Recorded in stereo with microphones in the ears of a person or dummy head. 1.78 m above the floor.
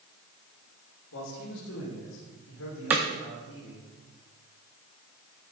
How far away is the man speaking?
About 2.5 m.